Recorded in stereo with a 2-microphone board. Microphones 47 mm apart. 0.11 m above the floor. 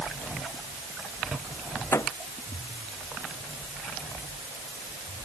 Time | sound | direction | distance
1.9 | a microwave | 75° left (ahead or behind) | ?